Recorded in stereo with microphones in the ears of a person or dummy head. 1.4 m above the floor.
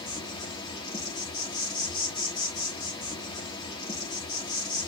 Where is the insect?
25° left (ahead or behind), 1.6 m.